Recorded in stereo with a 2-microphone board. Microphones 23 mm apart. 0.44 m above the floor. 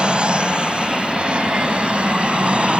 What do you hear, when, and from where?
0.0 s an aircraft: 50° right (ahead or behind); by 2.8 s 60° right (ahead or behind)